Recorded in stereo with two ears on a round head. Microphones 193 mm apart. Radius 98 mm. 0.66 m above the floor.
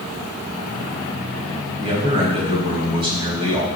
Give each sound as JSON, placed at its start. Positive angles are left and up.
{"t": 1.8, "sound": "a man speaking", "side_deg": -25, "distance_m": 4.0}